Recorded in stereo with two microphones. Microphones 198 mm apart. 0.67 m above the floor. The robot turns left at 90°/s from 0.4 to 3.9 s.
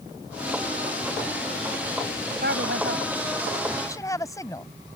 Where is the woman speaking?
65° right; by 4.7 s 165° left.